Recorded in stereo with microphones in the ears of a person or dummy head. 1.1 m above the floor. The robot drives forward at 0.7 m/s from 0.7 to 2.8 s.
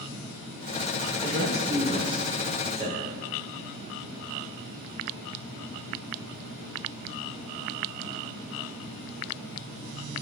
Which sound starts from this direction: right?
A woman speaking, at 1.2 s.